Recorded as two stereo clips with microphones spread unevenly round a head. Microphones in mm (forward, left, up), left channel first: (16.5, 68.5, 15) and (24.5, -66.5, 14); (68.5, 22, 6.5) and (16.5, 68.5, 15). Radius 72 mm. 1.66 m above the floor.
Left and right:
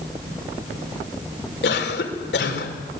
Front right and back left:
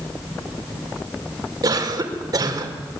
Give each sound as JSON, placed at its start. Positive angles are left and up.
{"t": 1.6, "sound": "a cough", "azimuth_deg": 110, "distance_m": 5.5}